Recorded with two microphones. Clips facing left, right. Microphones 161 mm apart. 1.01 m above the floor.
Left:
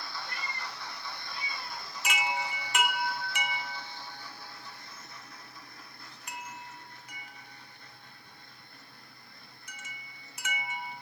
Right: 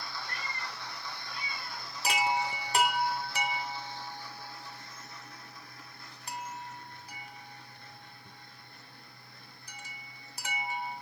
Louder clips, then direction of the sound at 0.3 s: Even; 20° left (ahead or behind).